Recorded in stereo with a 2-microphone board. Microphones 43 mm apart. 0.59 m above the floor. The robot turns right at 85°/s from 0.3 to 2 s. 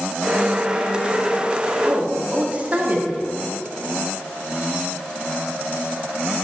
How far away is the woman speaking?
About 1.5 m.